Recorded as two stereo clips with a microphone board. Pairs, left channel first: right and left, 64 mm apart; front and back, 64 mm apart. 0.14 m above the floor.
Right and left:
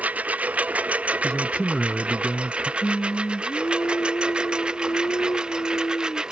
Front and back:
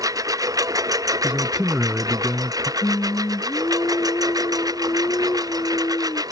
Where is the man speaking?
135° right.